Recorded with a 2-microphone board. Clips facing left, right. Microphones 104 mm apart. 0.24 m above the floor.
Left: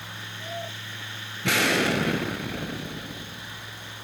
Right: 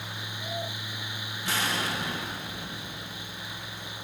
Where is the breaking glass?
I don't hear breaking glass.